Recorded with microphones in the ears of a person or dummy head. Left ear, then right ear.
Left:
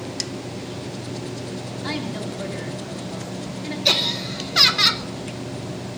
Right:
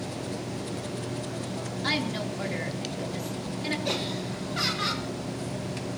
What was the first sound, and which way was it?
A woman speaking, 25° right (ahead or behind).